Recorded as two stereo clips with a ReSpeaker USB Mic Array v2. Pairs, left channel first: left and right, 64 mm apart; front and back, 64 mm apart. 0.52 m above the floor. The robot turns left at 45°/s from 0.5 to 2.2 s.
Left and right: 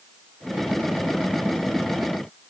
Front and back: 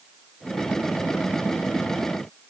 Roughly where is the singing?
No singing in this recording.